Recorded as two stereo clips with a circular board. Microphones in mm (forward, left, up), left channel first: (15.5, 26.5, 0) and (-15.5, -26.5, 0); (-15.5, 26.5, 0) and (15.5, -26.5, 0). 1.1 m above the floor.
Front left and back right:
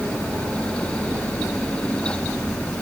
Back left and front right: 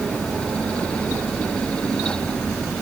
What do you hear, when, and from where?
Only background noise.